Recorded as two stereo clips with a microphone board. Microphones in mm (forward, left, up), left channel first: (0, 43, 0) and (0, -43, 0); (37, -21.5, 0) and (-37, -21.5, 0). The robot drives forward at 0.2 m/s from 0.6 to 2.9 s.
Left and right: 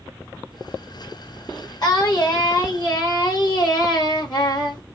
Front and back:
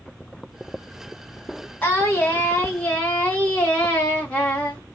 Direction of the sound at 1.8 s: 60° left.